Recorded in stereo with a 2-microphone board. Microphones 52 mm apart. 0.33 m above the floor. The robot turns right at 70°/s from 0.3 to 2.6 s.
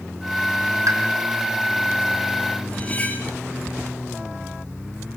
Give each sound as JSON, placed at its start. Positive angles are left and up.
{"t": 0.9, "sound": "a pop", "side_deg": -75, "distance_m": 4.0}
{"t": 2.7, "sound": "cutlery clinking", "side_deg": 30, "distance_m": 4.0}